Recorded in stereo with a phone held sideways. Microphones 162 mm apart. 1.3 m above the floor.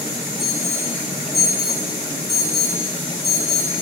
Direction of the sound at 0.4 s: 85° left.